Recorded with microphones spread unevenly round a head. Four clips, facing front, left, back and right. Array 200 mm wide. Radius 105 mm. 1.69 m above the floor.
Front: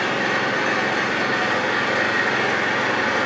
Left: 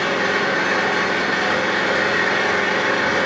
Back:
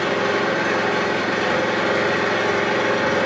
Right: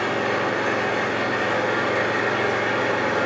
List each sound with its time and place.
0.0 s an engine running: 170° right, 3.5 m